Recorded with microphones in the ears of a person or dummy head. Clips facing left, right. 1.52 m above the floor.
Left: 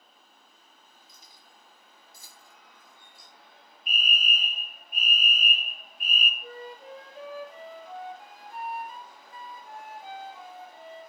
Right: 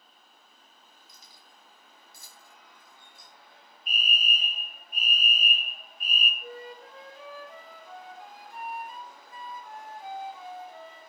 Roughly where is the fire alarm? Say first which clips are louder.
Left 1 dB; left.